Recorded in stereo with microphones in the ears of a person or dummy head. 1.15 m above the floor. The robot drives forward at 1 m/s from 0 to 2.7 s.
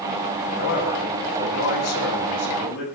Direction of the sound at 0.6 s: 70° left (ahead or behind).